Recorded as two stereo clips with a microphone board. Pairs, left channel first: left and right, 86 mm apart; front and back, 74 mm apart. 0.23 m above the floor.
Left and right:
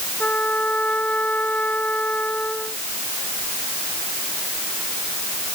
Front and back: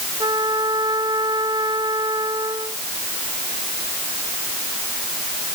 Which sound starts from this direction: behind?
A trumpet, at 0.2 s.